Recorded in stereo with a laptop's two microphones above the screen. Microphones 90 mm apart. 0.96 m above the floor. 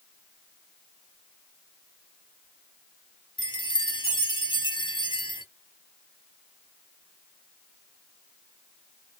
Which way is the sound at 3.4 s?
55° left (ahead or behind).